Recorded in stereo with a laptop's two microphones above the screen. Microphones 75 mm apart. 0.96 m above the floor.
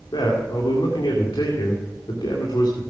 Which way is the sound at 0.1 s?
75° left (ahead or behind).